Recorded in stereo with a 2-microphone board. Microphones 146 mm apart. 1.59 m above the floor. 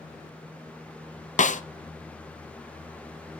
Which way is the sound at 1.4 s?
60° left (ahead or behind).